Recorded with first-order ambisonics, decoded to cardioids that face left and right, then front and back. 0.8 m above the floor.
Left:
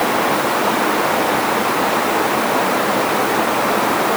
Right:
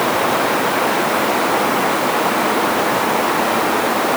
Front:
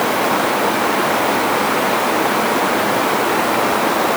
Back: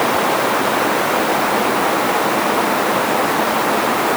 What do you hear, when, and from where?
Only background noise.